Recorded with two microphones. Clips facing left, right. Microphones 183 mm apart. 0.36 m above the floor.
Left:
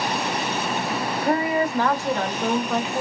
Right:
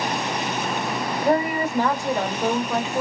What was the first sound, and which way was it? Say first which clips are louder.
A woman speaking: right 1 dB; 30° right (ahead or behind).